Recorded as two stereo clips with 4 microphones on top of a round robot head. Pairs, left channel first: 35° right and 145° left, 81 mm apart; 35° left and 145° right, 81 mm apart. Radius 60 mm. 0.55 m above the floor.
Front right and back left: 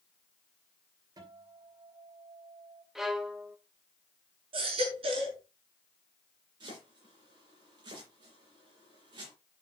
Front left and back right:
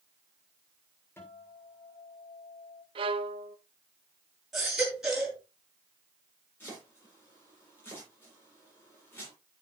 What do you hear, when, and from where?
1.2 s a guitar: 100° left, 3.5 m
3.0 s a violin: 130° right, 1.1 m
4.5 s a baby crying: 130° left, 4.5 m
6.6 s chopping: 105° left, 10 m